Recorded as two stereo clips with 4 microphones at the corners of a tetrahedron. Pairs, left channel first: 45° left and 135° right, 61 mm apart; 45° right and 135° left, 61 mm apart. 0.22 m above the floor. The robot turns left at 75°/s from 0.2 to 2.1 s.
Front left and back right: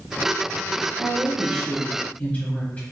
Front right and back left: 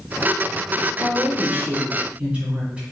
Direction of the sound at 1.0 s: 170° left.